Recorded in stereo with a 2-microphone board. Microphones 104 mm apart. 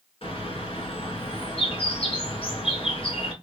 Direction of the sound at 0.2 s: 65° left (ahead or behind).